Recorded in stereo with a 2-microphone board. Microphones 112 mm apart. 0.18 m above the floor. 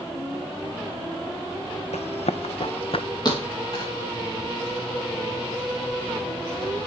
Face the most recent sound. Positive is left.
turn(degrees=40)  # may be behind; listen again after turning